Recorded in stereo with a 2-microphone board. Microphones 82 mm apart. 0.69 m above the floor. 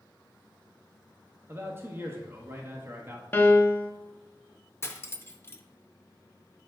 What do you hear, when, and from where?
1.5 s a man speaking: 30° right (ahead or behind), 1.0 m
3.3 s a piano: 25° left (ahead or behind), 0.5 m
4.8 s cutlery clinking: 30° left (ahead or behind), 0.6 m